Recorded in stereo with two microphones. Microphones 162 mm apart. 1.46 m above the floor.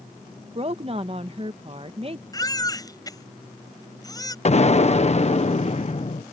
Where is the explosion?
45° left (ahead or behind).